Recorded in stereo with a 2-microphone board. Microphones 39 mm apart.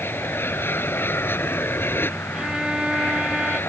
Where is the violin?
20° right (ahead or behind).